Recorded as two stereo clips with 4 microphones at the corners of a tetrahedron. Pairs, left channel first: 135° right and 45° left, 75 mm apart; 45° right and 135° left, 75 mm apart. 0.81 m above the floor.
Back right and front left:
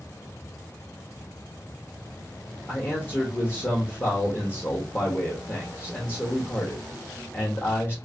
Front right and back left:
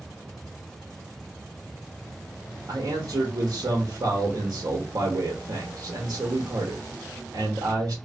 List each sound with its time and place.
2.7 s a man speaking: 160° left, 0.8 m